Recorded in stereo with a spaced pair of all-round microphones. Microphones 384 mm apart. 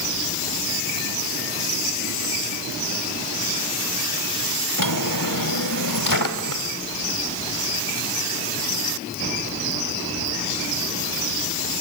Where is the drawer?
60° left (ahead or behind), 1.9 m.